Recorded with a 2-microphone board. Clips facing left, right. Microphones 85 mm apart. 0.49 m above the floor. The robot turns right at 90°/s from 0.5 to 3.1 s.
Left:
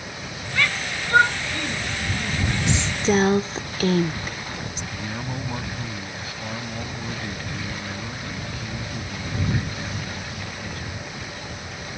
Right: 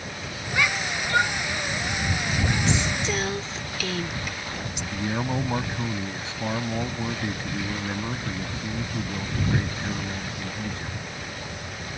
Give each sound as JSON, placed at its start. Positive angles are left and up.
{"t": 0.5, "sound": "a shout", "side_deg": -20}
{"t": 2.7, "sound": "a woman speaking", "side_deg": 15}
{"t": 4.9, "sound": "a man speaking", "side_deg": -25}